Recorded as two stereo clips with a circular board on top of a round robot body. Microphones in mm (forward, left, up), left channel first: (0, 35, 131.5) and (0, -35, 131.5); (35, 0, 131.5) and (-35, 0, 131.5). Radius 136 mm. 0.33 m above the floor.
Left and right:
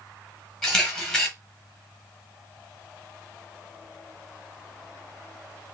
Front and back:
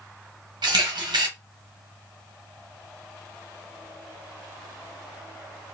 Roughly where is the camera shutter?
Behind.